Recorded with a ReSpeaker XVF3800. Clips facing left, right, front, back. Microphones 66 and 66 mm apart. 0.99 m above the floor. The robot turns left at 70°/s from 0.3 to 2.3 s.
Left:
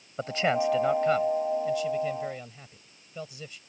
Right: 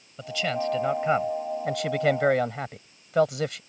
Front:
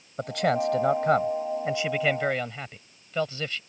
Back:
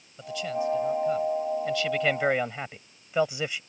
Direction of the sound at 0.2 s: 35° left.